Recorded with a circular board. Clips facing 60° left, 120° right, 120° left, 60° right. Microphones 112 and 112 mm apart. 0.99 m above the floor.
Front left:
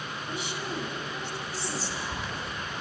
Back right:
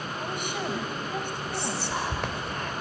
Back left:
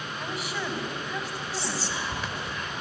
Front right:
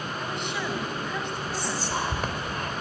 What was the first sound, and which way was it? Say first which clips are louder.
A woman speaking: back right 4 dB, even; 155° right.